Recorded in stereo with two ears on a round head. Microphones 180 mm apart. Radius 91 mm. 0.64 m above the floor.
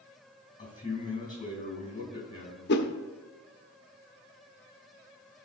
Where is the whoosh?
55° left (ahead or behind), 0.8 m.